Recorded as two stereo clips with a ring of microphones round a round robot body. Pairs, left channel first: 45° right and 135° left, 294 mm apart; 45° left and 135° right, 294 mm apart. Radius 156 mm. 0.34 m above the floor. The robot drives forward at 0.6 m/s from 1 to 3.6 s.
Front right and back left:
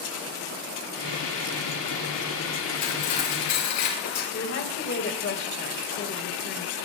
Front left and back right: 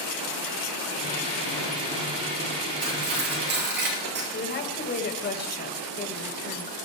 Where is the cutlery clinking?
75° right, 5 m; by 4.2 s 80° right, 4.5 m.